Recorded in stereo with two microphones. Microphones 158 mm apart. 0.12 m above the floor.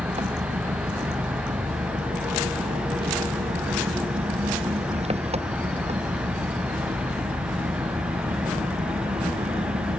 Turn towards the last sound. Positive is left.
turn(degrees=-45)  # may be behind; listen again after turning